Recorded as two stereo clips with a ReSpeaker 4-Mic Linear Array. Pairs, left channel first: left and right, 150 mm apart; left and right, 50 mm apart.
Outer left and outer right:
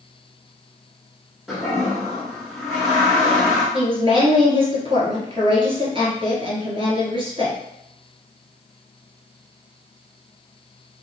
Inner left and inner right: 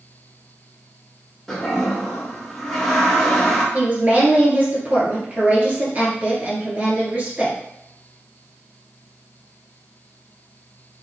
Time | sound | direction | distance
1.5 | a toilet flushing | centre (ahead or behind) | 1.3 m
3.7 | a woman speaking | 35° right (ahead or behind) | 1.5 m